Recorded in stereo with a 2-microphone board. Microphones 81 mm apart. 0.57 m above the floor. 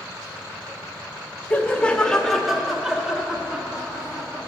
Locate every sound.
1.5 s laughter: 20° left (ahead or behind), 0.9 m; by 4.5 s 20° right (ahead or behind), 1.4 m